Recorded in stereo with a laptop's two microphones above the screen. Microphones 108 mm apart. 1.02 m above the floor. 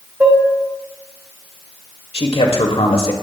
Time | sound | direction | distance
0.2 | dishes clattering | 15° right (ahead or behind) | 1.6 m
2.1 | a man speaking | 65° left (ahead or behind) | 2 m